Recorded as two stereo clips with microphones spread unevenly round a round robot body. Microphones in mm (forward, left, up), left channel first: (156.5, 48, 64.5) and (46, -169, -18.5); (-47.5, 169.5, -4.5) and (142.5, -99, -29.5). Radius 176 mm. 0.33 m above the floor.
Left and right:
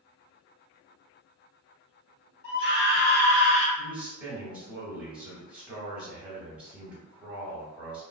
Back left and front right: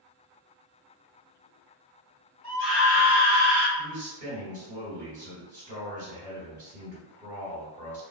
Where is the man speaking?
80° right, 1.5 m.